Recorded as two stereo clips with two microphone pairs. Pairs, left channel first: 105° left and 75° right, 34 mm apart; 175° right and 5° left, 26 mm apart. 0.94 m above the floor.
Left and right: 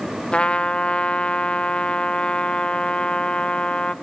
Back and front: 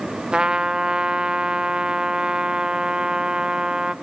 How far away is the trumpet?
About 0.5 m.